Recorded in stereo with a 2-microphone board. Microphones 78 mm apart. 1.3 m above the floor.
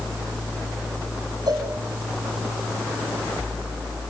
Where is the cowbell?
65° right (ahead or behind), 5.5 m.